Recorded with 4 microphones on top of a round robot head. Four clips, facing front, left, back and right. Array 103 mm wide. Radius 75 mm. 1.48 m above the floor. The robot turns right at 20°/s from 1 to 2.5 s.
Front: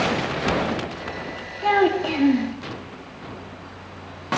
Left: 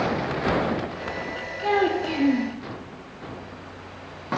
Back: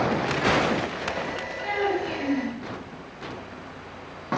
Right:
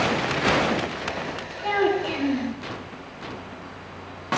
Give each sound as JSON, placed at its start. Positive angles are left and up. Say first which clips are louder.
{"t": 1.6, "sound": "a child speaking", "louder": "even, front 8 dB", "azimuth_deg": 10, "distance_m": 3.0}